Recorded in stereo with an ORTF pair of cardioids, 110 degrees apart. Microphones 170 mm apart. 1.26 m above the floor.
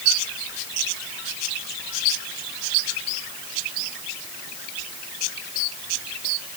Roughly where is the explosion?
I don't hear an explosion.